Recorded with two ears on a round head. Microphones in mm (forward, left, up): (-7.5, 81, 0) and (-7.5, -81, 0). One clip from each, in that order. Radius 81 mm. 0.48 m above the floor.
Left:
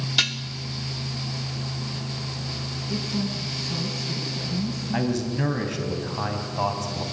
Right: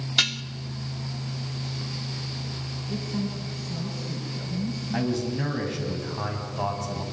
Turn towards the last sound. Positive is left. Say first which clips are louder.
# left 1 dB
turn(degrees=15)  # may be behind; listen again after turning